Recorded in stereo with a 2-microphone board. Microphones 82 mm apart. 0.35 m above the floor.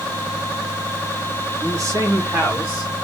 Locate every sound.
1.6 s a man speaking: 50° right (ahead or behind), 2.5 m; by 2.9 s 25° right (ahead or behind), 3 m